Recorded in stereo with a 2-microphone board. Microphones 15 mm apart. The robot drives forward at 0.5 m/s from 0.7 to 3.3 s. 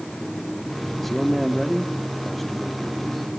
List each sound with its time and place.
1.0 s a man speaking: 20° left (ahead or behind), 1.3 m; by 3.3 s 10° left (ahead or behind), 2.5 m